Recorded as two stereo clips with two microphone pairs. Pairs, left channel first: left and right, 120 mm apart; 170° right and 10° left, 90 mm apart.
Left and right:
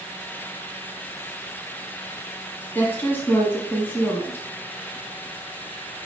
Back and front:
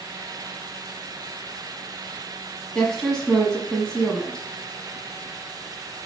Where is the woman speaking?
125° left, 1.4 m.